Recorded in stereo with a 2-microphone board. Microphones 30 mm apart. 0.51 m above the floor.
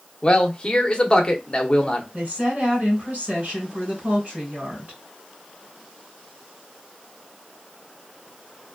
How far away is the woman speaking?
About 2 m.